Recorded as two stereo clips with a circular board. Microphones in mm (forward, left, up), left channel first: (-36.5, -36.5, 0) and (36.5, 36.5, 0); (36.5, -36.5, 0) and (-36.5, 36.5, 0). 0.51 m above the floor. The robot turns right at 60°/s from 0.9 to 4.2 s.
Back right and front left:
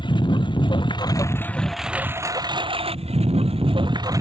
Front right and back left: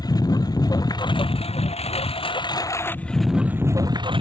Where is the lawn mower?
95° right; by 4.2 s 100° left.